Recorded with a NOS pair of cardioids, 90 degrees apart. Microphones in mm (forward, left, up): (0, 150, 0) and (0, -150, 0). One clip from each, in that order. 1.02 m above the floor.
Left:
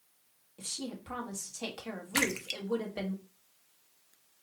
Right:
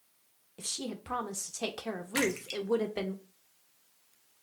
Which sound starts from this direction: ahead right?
A woman speaking, at 0.6 s.